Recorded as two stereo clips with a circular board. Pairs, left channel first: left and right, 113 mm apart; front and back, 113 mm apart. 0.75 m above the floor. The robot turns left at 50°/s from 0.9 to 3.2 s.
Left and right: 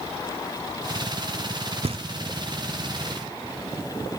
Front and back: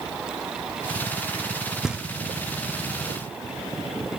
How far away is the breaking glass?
No breaking glass in this recording.